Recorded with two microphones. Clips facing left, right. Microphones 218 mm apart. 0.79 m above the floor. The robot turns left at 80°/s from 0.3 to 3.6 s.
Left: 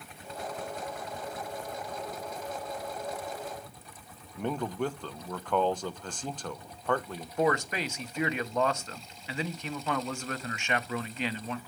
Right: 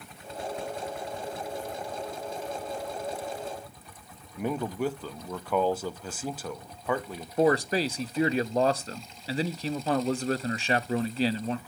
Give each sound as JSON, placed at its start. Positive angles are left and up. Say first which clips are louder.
{"t": 4.4, "sound": "a man speaking", "louder": "right 2 dB", "side_deg": -5, "distance_m": 0.7}
{"t": 7.4, "sound": "a man speaking", "louder": "right 5 dB", "side_deg": -35, "distance_m": 0.7}